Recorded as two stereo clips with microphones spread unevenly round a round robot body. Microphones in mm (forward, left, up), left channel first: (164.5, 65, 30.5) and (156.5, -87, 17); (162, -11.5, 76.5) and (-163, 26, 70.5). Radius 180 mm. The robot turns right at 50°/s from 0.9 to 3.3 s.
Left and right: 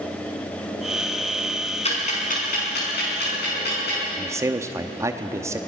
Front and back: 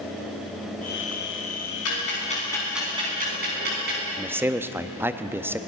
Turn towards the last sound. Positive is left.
turn(degrees=-115)